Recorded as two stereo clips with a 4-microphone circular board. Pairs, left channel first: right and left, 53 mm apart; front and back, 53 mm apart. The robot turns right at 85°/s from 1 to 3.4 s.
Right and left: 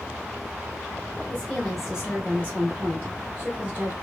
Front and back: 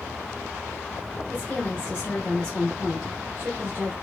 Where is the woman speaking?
40° right, 0.8 m; by 3.9 s 140° left, 0.8 m.